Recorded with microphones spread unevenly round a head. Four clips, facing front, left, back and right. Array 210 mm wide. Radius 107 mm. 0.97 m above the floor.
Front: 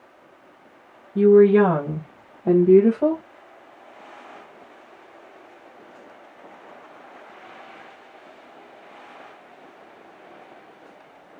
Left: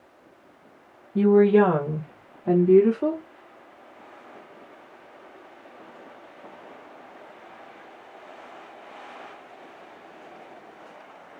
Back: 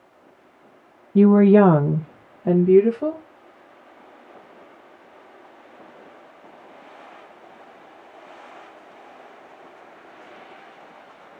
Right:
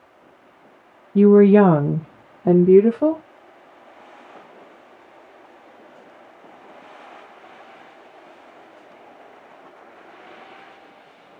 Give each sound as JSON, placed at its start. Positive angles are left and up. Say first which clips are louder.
{"t": 1.1, "sound": "a woman speaking", "louder": "right 5 dB, even", "azimuth_deg": -150, "distance_m": 0.7}